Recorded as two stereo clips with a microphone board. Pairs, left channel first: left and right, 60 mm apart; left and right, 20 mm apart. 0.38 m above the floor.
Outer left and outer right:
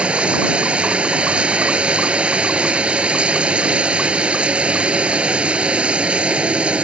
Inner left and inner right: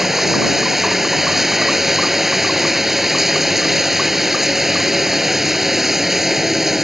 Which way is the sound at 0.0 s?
20° right (ahead or behind).